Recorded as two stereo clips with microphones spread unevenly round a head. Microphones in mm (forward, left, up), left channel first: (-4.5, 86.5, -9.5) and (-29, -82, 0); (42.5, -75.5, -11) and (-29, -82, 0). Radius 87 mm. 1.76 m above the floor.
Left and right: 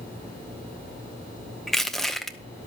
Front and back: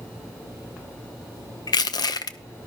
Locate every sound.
1.7 s crushing: 10° right, 0.8 m